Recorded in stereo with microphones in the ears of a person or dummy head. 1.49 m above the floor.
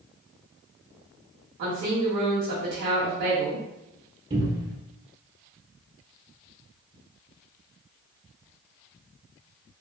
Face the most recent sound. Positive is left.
turn(degrees=-25)  # may be behind; listen again after turning